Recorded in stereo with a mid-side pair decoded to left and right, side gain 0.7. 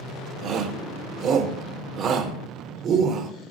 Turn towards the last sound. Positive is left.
turn(degrees=-45)